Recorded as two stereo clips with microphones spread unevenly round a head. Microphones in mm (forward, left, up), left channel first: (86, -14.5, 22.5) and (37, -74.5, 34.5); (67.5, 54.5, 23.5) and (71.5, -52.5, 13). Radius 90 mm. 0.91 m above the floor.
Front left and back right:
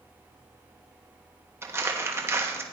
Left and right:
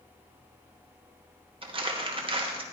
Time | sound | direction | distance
1.6 | crumpling | 70° right | 1.5 m